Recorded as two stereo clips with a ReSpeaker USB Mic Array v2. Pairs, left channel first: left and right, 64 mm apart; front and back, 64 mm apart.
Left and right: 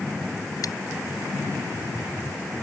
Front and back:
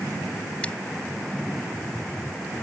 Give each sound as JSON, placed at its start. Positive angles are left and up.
{"t": 0.6, "sound": "scissors", "azimuth_deg": 70}